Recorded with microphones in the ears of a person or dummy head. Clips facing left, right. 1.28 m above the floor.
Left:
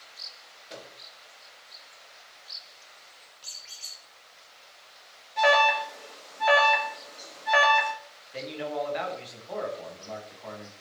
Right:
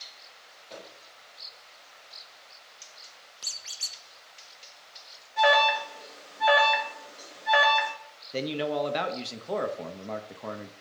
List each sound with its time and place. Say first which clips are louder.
0.7 s a microwave: even; 15° left (ahead or behind), 4 m
3.4 s a squeak: right 2 dB; 60° right (ahead or behind), 0.7 m
5.4 s an alarm: even; 5° right (ahead or behind), 1.4 m
8.3 s a man speaking: right 4 dB; 60° right (ahead or behind), 1.2 m